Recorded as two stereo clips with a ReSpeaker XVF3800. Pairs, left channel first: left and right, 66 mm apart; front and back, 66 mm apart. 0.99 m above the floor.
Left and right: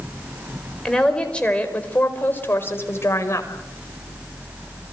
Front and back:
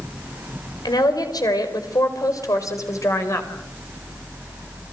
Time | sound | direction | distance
0.8 | a woman speaking | 10° left | 4.5 m